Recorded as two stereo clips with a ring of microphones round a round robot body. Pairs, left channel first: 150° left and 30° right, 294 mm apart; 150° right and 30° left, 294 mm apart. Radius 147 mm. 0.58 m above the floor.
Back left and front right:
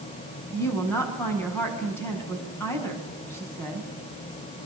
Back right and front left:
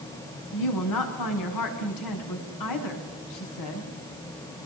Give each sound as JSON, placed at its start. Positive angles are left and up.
{"t": 0.5, "sound": "a woman speaking", "azimuth_deg": -130, "distance_m": 7.0}